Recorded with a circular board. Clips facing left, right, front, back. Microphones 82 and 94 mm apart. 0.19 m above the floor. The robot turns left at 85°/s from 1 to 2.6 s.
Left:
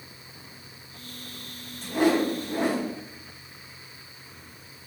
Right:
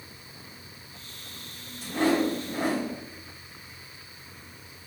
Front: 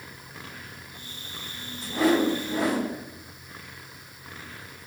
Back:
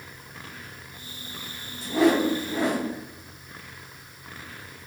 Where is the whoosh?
Straight behind, 2 m; by 2.9 s 115° left, 2 m.